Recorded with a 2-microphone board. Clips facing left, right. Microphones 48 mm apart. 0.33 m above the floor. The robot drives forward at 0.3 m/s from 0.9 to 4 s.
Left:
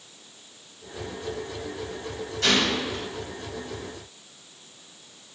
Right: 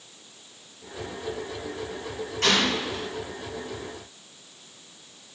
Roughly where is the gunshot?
Right.